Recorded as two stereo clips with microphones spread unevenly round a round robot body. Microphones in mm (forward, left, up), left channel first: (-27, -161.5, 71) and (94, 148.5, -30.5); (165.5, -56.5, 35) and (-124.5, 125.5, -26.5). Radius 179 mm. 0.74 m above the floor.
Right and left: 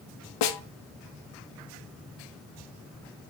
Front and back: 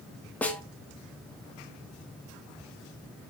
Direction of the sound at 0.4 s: 125° right.